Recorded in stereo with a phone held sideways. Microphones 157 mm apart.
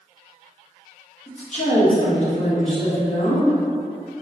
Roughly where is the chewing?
I don't hear chewing.